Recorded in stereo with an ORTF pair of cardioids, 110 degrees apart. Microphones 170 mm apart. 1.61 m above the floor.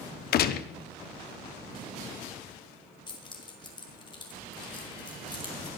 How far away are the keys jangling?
About 4 m.